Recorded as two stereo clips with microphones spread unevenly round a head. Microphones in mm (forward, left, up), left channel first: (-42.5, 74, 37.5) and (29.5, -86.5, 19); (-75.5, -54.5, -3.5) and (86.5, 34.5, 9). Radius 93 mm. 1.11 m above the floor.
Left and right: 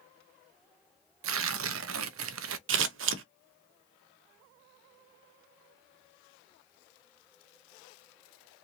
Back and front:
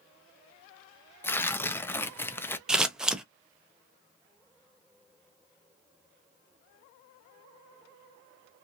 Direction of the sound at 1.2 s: 70° right.